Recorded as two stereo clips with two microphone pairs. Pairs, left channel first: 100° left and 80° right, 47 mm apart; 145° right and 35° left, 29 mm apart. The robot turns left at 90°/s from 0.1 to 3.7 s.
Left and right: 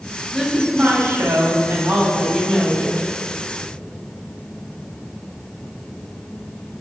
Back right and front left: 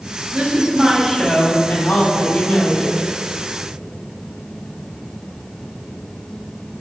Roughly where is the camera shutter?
No camera shutter in this recording.